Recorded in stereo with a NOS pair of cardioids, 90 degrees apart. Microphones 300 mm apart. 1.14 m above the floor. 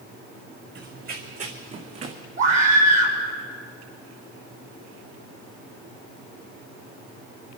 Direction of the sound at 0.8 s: 40° right.